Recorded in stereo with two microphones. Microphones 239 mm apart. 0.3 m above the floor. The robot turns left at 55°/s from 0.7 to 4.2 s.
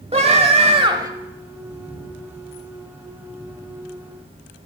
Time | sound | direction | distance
0.1 | a scream | 25° right (ahead or behind) | 1.1 m